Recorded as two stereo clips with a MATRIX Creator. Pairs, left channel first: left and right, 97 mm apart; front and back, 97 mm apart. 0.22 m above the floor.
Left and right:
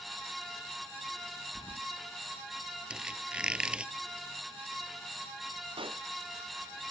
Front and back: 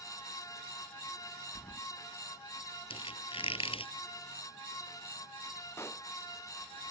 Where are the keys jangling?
70° left.